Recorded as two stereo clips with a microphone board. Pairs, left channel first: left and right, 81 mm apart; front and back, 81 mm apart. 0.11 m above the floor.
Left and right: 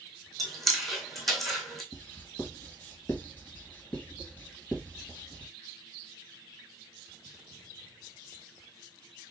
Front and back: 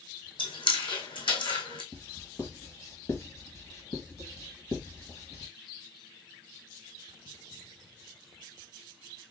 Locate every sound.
0.4 s chewing: 5° left, 2.5 m
1.9 s writing: 30° left, 1.7 m